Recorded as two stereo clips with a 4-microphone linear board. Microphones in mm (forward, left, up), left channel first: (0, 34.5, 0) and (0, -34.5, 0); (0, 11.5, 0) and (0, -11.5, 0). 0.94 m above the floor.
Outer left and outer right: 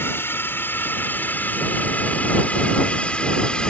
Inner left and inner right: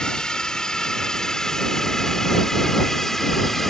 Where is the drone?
35° left (ahead or behind); by 3.7 s 15° left (ahead or behind).